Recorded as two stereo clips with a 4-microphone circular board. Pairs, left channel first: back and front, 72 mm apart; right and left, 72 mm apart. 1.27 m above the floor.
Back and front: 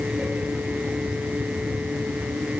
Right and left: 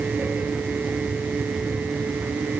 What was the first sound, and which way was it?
Only background noise.